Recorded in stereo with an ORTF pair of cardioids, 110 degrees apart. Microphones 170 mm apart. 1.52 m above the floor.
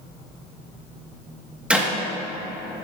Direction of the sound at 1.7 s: 5° right.